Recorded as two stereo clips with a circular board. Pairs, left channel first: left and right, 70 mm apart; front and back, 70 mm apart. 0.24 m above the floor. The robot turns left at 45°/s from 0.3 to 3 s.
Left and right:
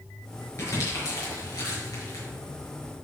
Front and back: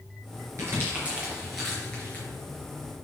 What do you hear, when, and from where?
0.6 s crumpling: 135° left, 4.5 m; by 2.2 s 60° left, 4.5 m